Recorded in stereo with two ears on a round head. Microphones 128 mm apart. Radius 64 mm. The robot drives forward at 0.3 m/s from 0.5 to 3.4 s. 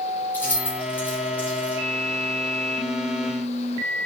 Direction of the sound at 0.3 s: 15° left (ahead or behind).